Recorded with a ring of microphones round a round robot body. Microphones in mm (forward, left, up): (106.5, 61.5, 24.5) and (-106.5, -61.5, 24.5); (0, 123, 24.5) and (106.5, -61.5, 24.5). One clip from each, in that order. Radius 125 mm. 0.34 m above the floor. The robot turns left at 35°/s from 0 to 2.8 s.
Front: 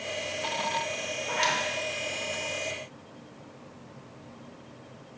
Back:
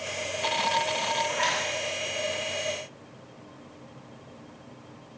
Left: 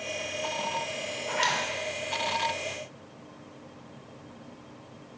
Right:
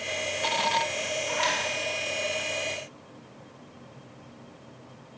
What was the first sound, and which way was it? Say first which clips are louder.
A zipper: even, left 1 dB; 75° left.